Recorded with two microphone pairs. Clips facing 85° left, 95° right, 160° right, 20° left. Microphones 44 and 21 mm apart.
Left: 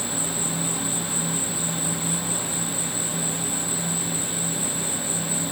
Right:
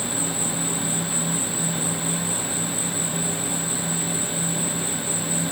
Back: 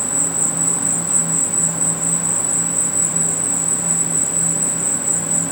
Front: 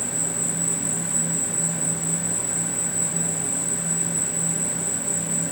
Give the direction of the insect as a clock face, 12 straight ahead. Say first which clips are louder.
Right 2 dB, back 6 dB; 6 o'clock.